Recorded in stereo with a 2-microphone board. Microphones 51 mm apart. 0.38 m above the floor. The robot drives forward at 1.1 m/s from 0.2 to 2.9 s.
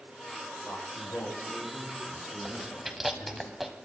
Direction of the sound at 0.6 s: 40° left (ahead or behind).